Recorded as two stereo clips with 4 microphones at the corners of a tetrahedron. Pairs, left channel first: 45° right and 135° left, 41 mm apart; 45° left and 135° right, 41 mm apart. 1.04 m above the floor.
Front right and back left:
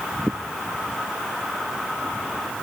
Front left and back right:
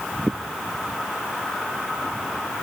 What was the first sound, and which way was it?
Only background noise.